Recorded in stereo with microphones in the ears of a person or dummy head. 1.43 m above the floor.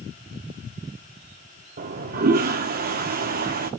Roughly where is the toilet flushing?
Right.